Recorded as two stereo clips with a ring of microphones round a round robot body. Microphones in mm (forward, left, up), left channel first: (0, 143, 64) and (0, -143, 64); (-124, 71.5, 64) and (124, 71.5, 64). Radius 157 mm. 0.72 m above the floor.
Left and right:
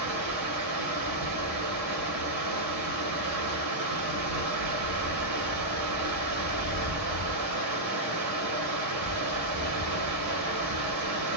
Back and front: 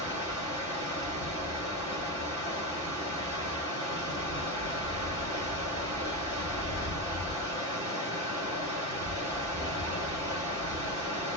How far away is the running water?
About 1.1 m.